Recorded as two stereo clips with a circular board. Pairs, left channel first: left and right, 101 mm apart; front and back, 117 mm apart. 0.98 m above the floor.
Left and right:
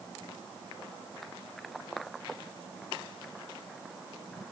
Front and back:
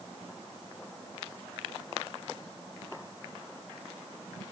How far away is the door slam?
I don't hear a door slam.